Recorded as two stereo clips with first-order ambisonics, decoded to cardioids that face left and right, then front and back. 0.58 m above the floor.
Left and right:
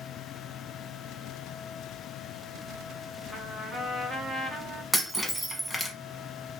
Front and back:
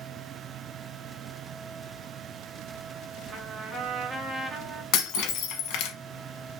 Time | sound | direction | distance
3.3 | a trumpet | 165° right | 1.1 m
4.9 | breaking glass | straight ahead | 0.8 m